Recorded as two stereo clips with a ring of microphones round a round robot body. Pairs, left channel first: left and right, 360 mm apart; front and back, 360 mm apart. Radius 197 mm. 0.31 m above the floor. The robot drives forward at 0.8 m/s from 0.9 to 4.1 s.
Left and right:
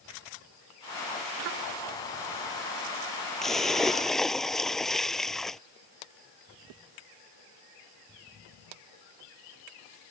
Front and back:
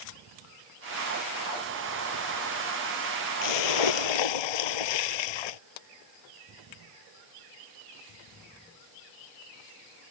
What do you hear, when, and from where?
3.4 s a splash: straight ahead